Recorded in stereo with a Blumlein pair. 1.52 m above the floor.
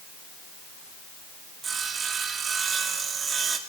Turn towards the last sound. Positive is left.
turn(degrees=-20)